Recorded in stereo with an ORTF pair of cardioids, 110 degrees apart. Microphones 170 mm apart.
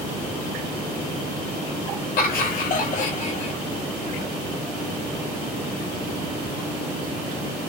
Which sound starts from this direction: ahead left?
Laughter, at 2.2 s.